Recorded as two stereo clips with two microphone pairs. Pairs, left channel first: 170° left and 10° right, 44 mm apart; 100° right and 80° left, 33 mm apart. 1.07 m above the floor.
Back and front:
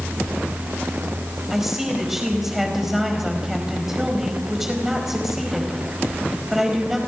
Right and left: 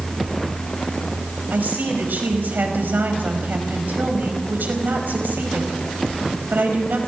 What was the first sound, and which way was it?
A woman speaking, 75° left.